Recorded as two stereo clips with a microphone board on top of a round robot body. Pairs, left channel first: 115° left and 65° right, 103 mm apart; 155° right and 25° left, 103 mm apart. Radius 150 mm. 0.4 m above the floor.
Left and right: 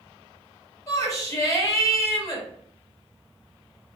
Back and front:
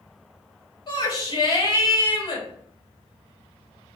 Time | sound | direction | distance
0.9 | a shout | 165° left | 1.8 m